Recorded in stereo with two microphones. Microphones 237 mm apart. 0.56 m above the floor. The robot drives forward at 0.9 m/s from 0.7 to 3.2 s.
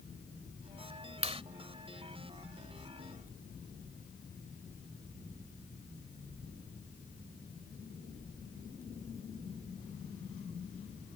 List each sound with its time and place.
1.2 s a clap: 25° right (ahead or behind)